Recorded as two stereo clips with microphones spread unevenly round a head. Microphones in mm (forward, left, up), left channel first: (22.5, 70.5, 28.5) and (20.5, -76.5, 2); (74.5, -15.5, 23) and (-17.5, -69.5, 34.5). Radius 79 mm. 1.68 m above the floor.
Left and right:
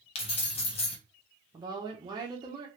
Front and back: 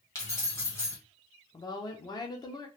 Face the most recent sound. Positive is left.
turn(degrees=-25)